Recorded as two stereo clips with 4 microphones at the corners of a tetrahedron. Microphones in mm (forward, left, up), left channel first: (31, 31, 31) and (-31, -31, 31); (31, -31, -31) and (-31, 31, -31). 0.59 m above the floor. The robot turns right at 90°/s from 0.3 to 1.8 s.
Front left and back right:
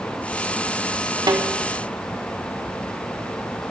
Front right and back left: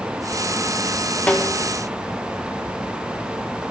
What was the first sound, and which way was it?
A snare drum, 115° right.